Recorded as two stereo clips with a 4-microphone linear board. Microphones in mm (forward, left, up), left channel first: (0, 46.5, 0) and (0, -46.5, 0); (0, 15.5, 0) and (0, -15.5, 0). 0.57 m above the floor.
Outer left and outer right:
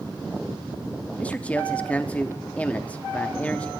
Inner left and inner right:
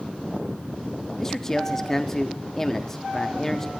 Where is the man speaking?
15° left (ahead or behind), 0.6 m.